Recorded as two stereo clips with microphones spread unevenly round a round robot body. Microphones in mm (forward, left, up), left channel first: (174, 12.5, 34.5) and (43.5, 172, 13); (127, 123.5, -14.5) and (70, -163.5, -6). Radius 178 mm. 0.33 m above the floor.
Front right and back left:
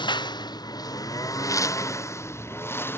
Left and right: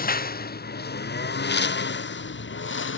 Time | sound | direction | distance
0.0 | a lawn mower | 20° left | ?